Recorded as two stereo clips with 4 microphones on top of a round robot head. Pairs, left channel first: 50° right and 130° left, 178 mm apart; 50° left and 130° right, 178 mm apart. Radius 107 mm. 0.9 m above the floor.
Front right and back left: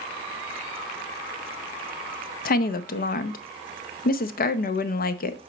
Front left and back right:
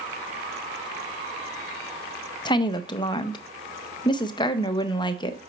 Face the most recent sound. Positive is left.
turn(degrees=-15)